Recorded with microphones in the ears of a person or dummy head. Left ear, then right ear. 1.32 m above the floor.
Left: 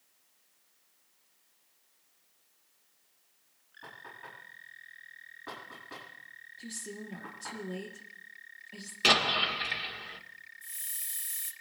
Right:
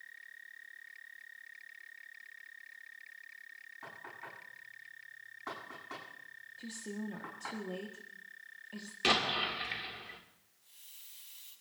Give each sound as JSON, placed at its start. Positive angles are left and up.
{"t": 3.8, "sound": "knocking", "side_deg": -65, "distance_m": 9.0}
{"t": 6.6, "sound": "a woman speaking", "side_deg": -25, "distance_m": 1.2}
{"t": 9.0, "sound": "an explosion", "side_deg": 10, "distance_m": 1.9}
{"t": 10.6, "sound": "a hiss", "side_deg": 50, "distance_m": 3.0}